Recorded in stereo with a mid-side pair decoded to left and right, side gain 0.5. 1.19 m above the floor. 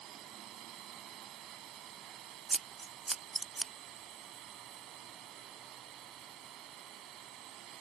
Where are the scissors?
15° right.